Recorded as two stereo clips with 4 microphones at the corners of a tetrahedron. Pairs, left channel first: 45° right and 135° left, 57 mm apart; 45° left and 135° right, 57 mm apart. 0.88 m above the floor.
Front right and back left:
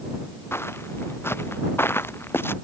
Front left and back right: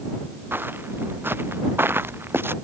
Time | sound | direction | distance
0.5 | footsteps | 85° right | ?